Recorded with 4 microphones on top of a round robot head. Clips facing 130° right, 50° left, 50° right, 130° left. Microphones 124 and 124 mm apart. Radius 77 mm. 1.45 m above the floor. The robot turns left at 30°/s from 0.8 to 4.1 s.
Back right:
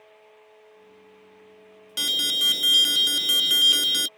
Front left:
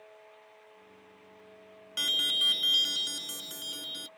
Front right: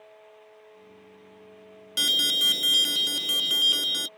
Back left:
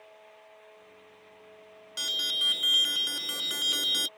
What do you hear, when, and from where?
2.0 s an alarm: 75° right; by 4.1 s 140° right